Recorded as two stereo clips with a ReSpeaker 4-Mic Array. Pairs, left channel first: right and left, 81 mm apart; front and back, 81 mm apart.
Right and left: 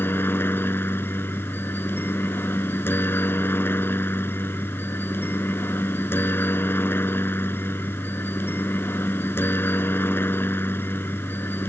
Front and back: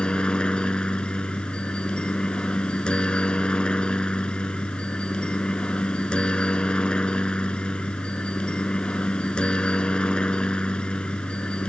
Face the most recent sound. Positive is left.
turn(degrees=-65)